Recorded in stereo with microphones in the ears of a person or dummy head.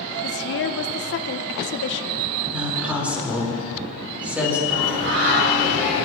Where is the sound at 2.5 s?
5° right (ahead or behind), 4.5 m.